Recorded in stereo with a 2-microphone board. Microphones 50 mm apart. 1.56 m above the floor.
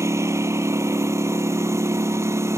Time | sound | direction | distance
0.0 | a lawn mower | 80° right | ?